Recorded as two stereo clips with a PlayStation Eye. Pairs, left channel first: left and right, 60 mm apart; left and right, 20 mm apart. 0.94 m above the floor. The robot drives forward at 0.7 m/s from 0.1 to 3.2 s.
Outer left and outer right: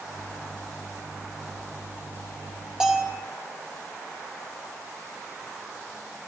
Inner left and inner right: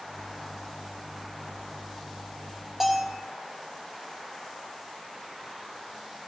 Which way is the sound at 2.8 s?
15° right (ahead or behind).